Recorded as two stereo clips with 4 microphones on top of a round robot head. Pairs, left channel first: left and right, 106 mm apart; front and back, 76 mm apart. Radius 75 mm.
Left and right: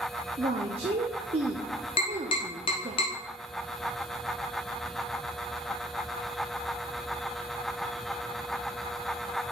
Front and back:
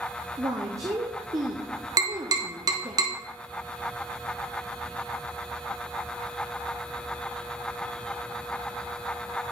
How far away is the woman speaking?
About 0.6 m.